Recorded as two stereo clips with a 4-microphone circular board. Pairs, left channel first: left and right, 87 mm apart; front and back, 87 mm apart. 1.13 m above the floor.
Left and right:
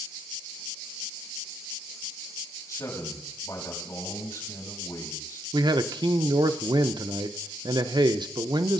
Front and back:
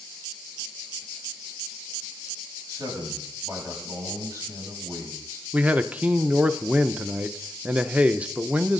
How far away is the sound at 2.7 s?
About 8 m.